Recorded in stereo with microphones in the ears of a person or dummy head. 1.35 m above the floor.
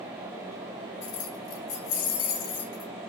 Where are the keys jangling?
70° left (ahead or behind), 2.5 m; by 2.9 s 45° left (ahead or behind), 2.5 m.